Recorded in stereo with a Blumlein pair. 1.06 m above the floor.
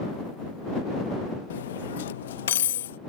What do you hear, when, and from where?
1.5 s cutlery clinking: 60° left